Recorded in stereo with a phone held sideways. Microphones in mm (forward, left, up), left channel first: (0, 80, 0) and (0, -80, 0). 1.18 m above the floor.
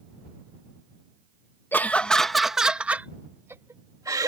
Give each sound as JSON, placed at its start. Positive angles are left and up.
{"t": 1.7, "sound": "laughter", "side_deg": 15}